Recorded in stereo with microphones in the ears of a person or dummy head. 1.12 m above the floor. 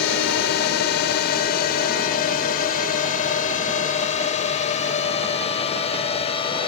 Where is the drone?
60° left (ahead or behind); by 6.7 s 30° left (ahead or behind).